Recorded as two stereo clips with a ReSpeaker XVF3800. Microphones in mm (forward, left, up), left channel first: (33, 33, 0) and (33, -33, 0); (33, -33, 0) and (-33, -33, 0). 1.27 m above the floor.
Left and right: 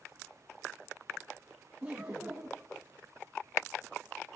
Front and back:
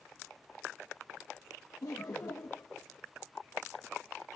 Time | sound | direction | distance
1.8 | laughter | 20° right | 1.3 m